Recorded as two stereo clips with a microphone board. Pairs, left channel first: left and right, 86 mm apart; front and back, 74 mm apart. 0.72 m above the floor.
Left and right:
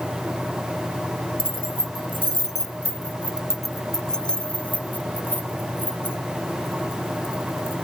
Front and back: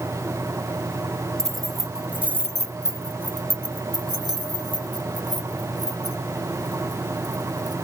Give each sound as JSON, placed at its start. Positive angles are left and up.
{"t": 1.4, "sound": "keys jangling", "azimuth_deg": -80}